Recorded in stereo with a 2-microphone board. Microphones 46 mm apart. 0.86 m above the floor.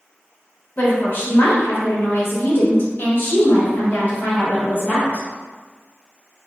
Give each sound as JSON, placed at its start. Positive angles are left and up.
{"t": 0.8, "sound": "a woman speaking", "side_deg": 40, "distance_m": 1.1}